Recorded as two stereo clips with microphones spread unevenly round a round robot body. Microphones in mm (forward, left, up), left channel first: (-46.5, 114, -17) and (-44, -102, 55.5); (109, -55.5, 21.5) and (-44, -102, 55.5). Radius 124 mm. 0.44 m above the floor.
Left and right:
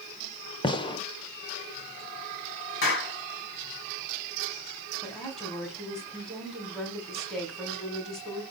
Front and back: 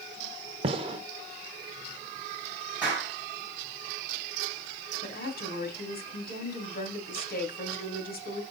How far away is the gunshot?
About 1.1 m.